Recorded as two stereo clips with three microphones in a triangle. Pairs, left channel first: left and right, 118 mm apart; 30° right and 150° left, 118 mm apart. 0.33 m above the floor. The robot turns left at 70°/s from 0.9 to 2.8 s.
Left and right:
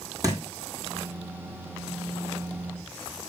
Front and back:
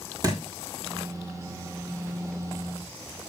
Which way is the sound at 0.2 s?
150° right.